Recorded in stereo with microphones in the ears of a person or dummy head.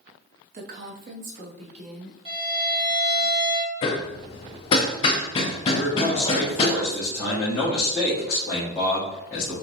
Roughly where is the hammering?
Left.